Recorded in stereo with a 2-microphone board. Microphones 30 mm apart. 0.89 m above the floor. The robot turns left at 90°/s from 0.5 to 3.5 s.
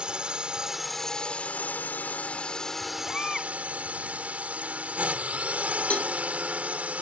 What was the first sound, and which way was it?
A drone, 145° right.